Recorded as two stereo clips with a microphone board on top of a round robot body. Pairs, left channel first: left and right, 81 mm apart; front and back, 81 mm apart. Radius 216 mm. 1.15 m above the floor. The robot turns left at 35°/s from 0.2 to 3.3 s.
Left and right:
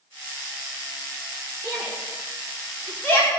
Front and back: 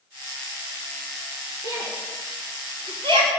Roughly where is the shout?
Behind right.